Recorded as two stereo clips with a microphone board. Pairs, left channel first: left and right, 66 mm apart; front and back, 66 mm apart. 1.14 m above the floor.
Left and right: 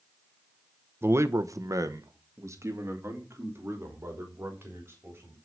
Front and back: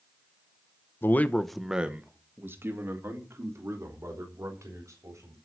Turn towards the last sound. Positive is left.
turn(degrees=-140)